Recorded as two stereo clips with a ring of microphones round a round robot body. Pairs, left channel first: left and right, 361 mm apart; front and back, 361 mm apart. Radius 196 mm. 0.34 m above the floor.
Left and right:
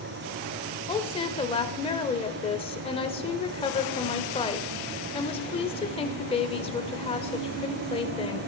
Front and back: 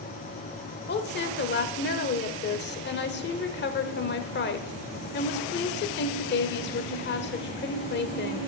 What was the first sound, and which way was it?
A woman speaking, 30° left.